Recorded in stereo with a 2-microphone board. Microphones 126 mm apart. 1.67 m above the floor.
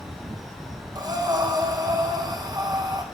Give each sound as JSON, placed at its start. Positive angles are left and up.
{"t": 0.9, "sound": "breathing", "side_deg": -30, "distance_m": 1.2}